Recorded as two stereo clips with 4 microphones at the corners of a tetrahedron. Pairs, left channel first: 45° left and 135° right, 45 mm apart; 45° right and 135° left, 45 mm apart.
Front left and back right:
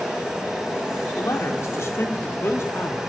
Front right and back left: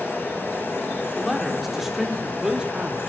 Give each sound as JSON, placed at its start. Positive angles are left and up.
{"t": 1.2, "sound": "a man speaking", "azimuth_deg": 45, "distance_m": 3.0}